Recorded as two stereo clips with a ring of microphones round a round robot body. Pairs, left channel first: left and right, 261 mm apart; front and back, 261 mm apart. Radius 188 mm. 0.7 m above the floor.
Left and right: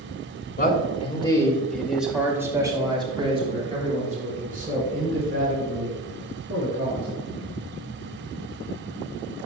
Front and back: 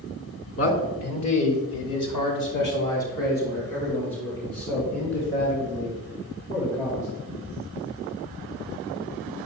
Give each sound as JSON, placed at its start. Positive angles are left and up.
{"t": 0.6, "sound": "a man speaking", "azimuth_deg": 35, "distance_m": 3.0}